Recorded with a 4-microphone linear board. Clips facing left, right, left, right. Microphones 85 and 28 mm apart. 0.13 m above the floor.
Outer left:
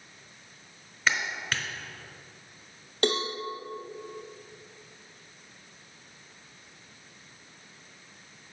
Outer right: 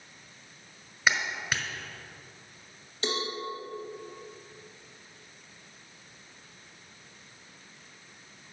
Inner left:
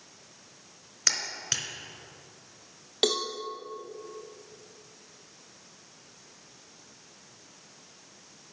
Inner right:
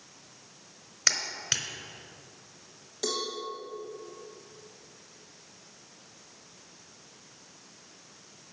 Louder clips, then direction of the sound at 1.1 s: Outer right 1 dB, inner right 1 dB; 10° right (ahead or behind).